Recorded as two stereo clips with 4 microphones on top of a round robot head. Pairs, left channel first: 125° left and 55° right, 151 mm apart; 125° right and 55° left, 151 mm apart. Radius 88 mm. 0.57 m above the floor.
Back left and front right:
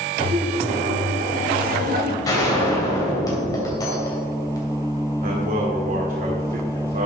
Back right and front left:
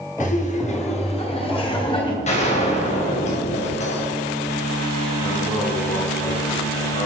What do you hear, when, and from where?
0.2 s laughter: 105° right, 1.8 m; by 2.1 s 65° right, 2.5 m
2.2 s a gunshot: 170° right, 3 m
5.2 s a man speaking: 75° right, 1.9 m